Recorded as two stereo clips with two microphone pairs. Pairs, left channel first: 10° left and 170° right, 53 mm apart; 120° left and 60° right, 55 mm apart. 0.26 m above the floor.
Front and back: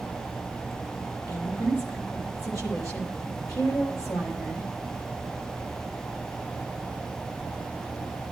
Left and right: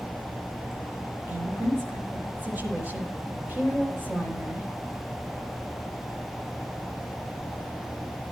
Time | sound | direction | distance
1.3 | a woman speaking | straight ahead | 9 m